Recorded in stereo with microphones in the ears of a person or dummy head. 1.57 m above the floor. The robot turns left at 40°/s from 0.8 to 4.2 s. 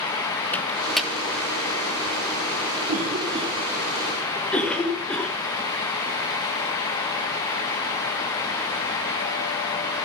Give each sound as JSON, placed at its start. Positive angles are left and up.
{"t": 0.5, "sound": "a microwave", "side_deg": 5, "distance_m": 1.3}
{"t": 2.9, "sound": "a cough", "side_deg": -45, "distance_m": 1.3}